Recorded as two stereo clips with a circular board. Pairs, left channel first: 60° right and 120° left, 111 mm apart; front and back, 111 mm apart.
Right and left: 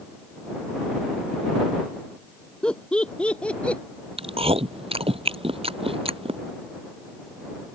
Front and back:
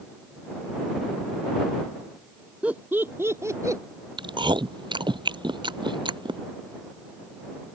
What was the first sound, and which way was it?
Laughter, 125° right.